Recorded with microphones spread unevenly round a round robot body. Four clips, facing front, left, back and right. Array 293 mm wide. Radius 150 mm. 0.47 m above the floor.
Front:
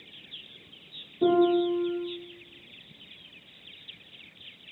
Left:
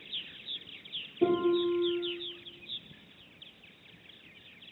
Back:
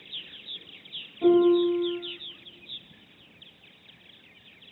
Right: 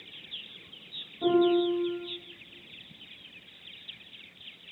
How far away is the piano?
About 5.5 m.